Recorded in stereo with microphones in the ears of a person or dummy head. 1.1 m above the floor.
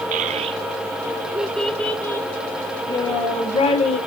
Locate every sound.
0.1 s a child speaking: 40° right (ahead or behind), 1.0 m; by 4.0 s 35° left (ahead or behind), 2 m